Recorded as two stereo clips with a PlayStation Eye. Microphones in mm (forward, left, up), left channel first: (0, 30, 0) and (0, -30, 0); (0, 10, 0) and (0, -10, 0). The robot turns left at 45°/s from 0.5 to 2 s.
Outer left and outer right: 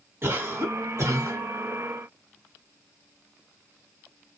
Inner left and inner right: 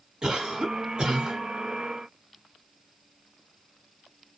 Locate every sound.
0.2 s a cough: 60° right, 1.4 m; by 1.4 s 105° right, 1.4 m